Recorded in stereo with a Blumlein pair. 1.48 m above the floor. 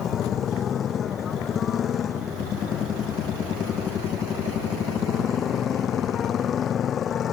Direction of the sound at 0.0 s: 25° left.